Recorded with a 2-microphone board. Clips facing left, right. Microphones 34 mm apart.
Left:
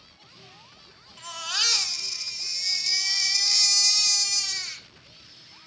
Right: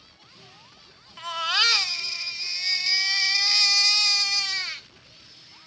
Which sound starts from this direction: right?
A baby crying, at 1.2 s.